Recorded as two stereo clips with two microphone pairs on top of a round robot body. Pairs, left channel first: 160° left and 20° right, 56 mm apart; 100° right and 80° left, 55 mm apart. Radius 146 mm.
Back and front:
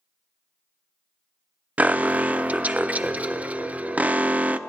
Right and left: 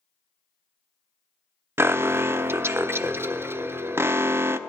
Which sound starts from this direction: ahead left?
An alarm, at 1.8 s.